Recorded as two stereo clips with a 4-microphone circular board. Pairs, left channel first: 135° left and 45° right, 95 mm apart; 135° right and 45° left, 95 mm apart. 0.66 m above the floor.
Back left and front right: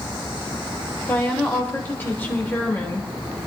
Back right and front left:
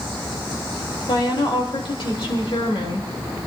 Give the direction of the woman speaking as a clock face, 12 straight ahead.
5 o'clock.